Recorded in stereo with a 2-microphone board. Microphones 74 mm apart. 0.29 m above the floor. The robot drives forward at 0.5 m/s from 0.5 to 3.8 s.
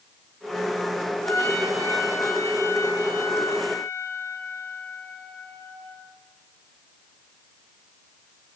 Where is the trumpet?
35° left (ahead or behind), 3.5 m; by 6.0 s 25° left (ahead or behind), 4.5 m.